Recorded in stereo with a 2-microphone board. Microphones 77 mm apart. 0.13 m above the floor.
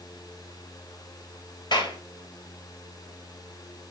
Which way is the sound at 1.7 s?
65° left (ahead or behind).